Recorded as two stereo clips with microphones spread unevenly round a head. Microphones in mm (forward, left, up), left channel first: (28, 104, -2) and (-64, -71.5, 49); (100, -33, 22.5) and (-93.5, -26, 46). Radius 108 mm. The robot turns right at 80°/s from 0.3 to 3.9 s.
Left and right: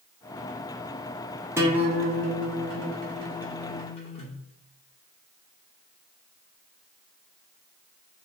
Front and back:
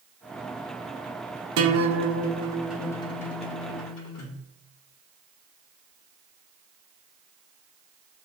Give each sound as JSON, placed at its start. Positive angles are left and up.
{"t": 1.6, "sound": "a guitar", "azimuth_deg": 170, "distance_m": 0.7}